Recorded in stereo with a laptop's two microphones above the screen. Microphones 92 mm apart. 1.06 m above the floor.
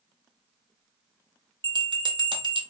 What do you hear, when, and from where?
1.6 s a bell: 60° right (ahead or behind), 0.6 m